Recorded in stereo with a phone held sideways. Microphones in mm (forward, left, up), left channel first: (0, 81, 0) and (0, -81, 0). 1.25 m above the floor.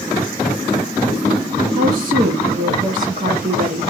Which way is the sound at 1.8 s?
55° right (ahead or behind).